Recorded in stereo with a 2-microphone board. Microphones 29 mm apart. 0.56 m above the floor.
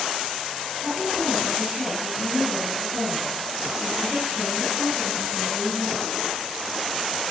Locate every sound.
0.8 s a woman speaking: 20° right (ahead or behind), 9 m